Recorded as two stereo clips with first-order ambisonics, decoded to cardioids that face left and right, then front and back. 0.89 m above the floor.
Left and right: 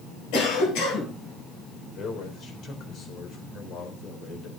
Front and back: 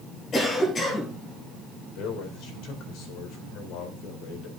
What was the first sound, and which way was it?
A cough, 65° left.